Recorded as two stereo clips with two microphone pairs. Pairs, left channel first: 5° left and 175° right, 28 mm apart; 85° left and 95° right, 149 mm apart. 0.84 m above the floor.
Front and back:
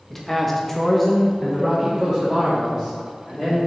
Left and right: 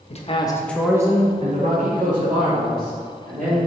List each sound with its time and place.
0.1 s a man speaking: 85° left, 1.3 m; by 3.6 s 85° right, 4 m